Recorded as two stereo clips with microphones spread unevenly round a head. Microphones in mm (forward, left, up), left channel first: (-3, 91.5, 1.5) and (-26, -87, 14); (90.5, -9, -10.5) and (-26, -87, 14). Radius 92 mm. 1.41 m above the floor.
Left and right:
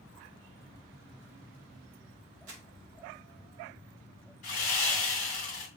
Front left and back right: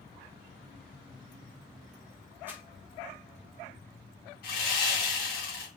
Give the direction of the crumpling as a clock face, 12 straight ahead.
2 o'clock.